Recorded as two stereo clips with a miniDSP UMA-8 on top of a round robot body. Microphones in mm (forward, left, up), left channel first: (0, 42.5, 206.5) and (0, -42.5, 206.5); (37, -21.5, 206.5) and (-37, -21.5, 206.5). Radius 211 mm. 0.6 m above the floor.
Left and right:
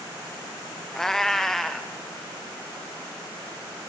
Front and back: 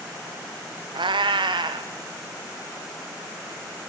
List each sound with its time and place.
0.9 s a cat meowing: 175° left, 0.8 m